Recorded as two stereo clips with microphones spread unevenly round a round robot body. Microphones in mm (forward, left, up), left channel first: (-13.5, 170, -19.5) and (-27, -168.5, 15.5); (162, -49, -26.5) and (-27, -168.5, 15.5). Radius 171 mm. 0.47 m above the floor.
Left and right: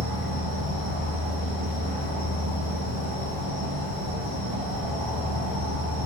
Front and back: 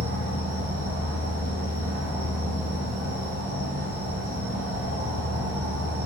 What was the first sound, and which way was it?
An insect, 165° right.